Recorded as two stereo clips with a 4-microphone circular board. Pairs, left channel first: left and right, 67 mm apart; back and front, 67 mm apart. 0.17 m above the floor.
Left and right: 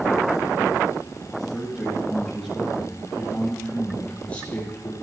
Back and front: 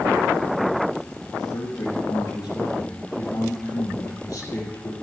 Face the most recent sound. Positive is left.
turn(degrees=150)